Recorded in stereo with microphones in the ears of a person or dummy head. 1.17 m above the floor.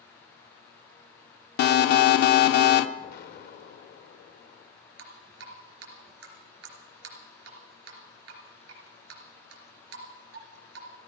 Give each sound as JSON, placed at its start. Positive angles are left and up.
{"t": 1.6, "sound": "an alarm", "side_deg": 65, "distance_m": 0.8}
{"t": 3.0, "sound": "an explosion", "side_deg": 65, "distance_m": 1.4}
{"t": 5.0, "sound": "dripping", "side_deg": -75, "distance_m": 3.5}